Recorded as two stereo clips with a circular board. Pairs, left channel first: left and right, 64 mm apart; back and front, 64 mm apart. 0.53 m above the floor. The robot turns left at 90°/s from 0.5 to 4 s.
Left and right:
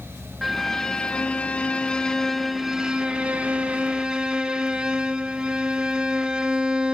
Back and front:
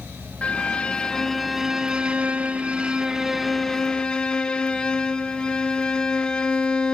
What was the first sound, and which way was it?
A violin, straight behind.